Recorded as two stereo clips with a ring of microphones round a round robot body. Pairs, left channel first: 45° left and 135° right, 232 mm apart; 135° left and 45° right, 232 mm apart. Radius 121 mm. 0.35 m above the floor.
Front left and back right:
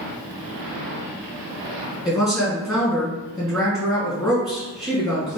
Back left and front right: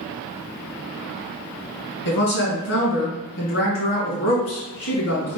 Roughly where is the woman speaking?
Behind left.